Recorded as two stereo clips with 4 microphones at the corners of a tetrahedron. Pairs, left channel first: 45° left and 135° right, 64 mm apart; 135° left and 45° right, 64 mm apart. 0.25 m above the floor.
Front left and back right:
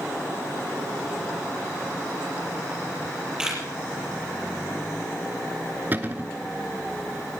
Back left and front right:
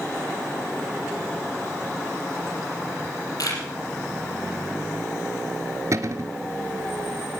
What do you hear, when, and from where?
3.0 s a camera shutter: 145° left, 6 m
5.9 s a cupboard door: 75° right, 1.0 m